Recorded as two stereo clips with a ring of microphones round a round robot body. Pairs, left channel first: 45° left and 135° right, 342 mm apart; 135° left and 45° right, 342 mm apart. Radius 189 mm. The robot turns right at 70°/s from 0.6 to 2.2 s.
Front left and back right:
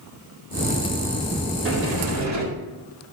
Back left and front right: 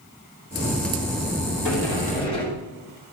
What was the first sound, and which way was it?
A sliding door, 170° left.